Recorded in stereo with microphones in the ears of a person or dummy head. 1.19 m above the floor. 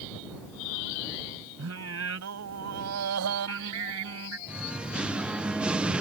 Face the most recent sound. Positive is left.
turn(degrees=-10)  # may be behind; listen again after turning